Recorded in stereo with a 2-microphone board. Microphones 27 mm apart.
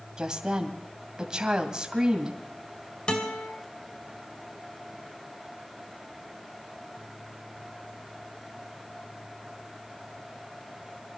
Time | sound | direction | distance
0.2 | a woman speaking | 30° right (ahead or behind) | 2 m
3.1 | a guitar | 40° left (ahead or behind) | 2.5 m